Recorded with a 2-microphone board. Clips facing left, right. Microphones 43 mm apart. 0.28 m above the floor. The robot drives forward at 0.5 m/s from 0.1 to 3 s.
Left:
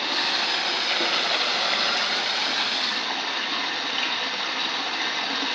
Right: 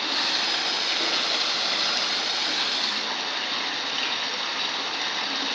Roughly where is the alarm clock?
No alarm clock in this recording.